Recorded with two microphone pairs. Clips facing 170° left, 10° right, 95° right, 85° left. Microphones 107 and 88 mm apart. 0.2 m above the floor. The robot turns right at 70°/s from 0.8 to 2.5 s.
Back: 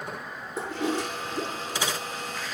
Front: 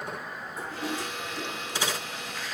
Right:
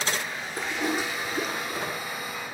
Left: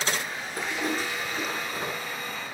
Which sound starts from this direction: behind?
A toilet flushing, at 0.6 s.